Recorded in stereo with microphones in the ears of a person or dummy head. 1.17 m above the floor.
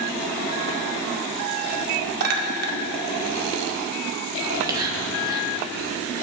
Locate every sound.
2.2 s a clink: 60° right (ahead or behind), 1.7 m
4.4 s whispering: 25° right (ahead or behind), 2 m